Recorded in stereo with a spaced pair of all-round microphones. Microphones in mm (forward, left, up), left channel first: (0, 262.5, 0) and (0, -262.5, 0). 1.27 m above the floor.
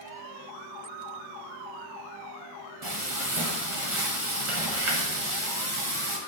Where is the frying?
75° right (ahead or behind), 1.1 m.